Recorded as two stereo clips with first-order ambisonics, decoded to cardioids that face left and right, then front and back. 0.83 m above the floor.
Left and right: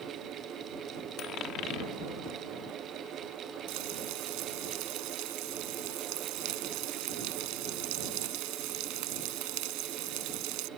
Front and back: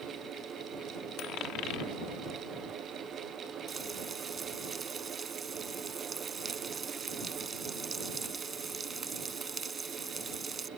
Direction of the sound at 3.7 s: 110° right.